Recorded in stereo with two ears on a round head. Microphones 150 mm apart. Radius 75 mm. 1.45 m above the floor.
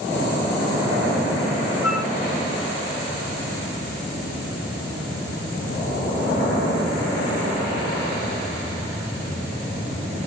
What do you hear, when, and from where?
1.8 s a flute: 5° right (ahead or behind), 3 m